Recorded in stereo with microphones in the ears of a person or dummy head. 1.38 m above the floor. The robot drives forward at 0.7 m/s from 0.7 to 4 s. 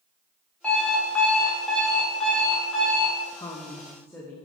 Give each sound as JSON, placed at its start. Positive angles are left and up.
{"t": 0.6, "sound": "an alarm clock", "side_deg": 5, "distance_m": 1.2}
{"t": 3.3, "sound": "a woman speaking", "side_deg": 20, "distance_m": 0.6}